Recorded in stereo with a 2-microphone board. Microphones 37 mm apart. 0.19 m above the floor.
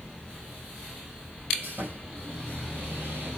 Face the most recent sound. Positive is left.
turn(degrees=-60)  # may be behind; listen again after turning